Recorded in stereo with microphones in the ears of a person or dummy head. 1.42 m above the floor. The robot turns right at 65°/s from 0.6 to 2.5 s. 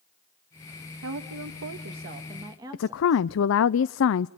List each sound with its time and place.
1.0 s a woman speaking: 115° right, 1.6 m; by 3.3 s 15° right, 1.6 m
2.7 s a woman speaking: 60° left (ahead or behind), 0.5 m